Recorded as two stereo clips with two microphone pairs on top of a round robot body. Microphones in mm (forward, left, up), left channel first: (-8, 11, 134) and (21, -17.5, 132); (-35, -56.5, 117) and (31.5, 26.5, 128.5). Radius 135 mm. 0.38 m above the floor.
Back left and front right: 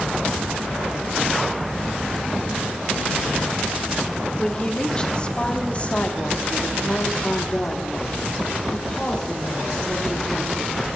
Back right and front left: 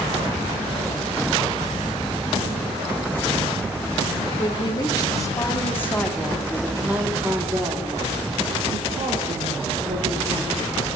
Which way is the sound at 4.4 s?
155° right.